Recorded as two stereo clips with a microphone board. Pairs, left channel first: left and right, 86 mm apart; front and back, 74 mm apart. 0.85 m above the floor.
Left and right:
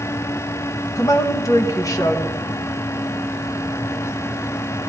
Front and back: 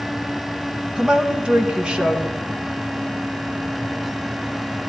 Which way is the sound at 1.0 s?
110° left.